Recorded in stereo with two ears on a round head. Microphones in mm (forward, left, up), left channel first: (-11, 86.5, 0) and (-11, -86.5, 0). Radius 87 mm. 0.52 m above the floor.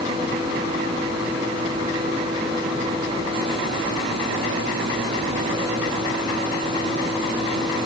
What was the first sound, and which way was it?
Only background noise.